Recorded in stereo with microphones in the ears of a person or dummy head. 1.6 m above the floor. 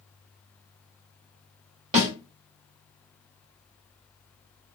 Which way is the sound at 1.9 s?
30° right (ahead or behind).